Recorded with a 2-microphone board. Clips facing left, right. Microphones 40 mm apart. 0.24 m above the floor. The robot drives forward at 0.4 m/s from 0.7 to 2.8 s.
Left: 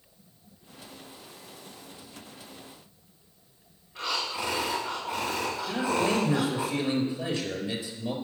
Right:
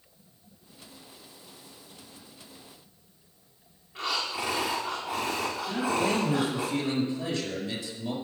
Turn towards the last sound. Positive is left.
turn(degrees=10)  # may be behind; listen again after turning